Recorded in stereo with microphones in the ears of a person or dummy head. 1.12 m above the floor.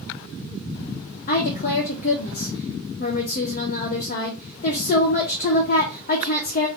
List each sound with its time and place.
1.3 s a woman speaking: 40° left (ahead or behind), 0.6 m